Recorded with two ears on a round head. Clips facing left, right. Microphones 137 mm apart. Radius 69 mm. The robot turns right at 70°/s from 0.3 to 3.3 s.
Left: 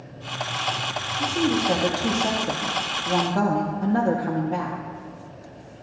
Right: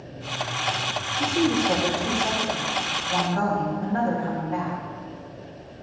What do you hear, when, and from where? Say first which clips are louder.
1.2 s a woman speaking: right 1 dB; 15° right, 1.3 m; by 4.8 s 135° left, 1.3 m